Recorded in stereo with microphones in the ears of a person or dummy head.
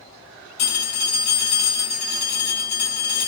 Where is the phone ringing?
30° left (ahead or behind), 1.3 m.